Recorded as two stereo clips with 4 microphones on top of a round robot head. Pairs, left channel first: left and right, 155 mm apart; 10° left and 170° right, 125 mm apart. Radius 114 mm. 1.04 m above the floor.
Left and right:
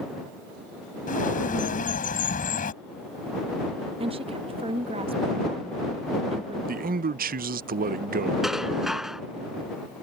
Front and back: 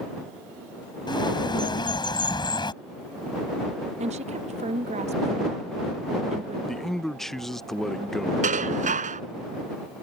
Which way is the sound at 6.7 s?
75° right.